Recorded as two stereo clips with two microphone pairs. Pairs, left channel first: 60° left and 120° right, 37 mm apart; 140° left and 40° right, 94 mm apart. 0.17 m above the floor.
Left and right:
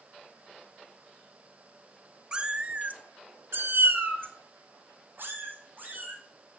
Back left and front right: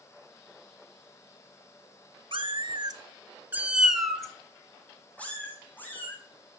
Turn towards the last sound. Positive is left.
turn(degrees=-150)